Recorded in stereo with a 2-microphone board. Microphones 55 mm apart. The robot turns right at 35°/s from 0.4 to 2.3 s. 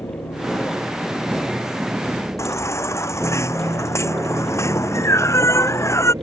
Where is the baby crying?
60° left (ahead or behind).